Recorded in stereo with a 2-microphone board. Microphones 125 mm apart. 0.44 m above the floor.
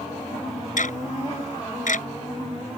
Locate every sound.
0.8 s ticking: 75° left (ahead or behind)